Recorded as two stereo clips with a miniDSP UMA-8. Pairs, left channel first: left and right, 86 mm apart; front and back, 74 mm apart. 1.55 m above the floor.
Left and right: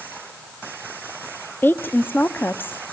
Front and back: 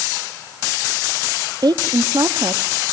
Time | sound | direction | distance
1.6 | a woman speaking | 155° left | 0.9 m